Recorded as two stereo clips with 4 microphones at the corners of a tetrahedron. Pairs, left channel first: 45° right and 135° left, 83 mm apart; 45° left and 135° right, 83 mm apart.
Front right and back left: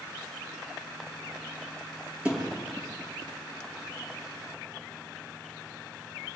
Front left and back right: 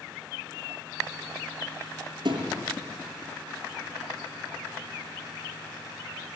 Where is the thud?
150° right, 5 m.